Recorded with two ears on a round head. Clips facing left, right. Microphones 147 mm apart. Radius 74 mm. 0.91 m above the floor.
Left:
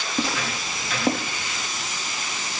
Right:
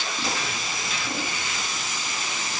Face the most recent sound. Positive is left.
turn(degrees=40)  # may be behind; listen again after turning